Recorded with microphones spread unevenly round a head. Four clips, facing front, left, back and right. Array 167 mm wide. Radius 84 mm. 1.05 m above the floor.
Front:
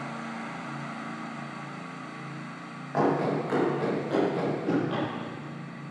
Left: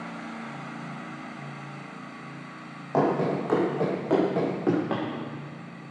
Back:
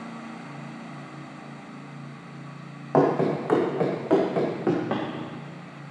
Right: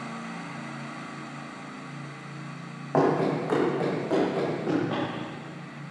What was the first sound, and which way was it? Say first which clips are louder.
Running footsteps: right 1 dB, back 4 dB; straight behind.